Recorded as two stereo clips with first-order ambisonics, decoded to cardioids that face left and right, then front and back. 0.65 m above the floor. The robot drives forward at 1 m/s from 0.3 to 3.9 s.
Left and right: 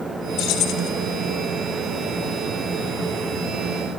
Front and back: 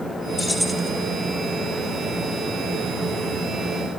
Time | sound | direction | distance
0.4 | keys jangling | 70° left | 0.9 m